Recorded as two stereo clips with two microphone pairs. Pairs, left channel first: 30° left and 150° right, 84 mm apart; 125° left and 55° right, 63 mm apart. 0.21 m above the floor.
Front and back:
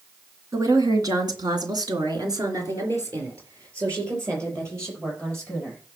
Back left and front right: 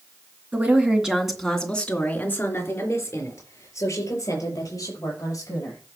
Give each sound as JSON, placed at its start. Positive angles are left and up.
{"t": 0.5, "sound": "a woman speaking", "azimuth_deg": -110, "distance_m": 2.5}